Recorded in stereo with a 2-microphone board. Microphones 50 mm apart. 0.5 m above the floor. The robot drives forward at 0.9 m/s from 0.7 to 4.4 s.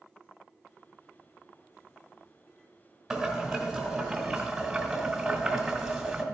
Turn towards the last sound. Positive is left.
turn(degrees=-5)  # may be behind; listen again after turning